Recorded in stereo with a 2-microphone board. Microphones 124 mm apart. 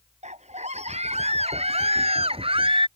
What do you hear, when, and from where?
0.2 s a scream: 65° right (ahead or behind); by 2.9 s 45° right (ahead or behind)